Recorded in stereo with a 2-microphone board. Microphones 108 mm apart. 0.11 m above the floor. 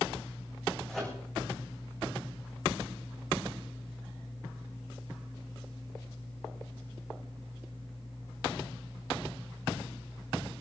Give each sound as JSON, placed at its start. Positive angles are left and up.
{"t": 0.9, "sound": "a microwave", "side_deg": 0, "distance_m": 6.5}